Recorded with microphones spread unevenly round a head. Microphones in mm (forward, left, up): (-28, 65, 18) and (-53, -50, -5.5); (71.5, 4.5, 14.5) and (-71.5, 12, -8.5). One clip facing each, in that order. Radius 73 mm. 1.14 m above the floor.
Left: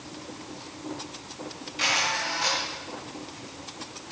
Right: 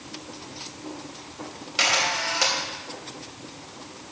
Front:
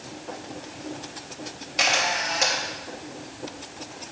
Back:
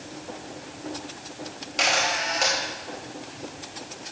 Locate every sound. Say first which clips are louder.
1.8 s a camera shutter: right 3 dB, even; 90° right, 3.5 m